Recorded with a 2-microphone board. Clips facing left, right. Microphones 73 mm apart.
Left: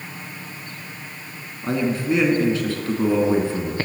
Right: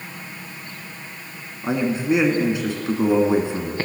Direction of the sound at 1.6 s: 15° right (ahead or behind).